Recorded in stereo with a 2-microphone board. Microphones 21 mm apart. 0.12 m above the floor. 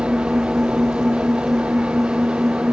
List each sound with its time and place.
0.0 s an engine running: 55° right (ahead or behind)